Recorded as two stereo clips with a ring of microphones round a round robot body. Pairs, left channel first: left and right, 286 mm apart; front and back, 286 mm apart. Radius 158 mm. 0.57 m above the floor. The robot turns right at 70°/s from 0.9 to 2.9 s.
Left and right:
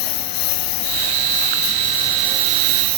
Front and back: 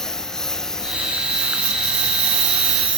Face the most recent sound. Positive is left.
turn(degrees=-130)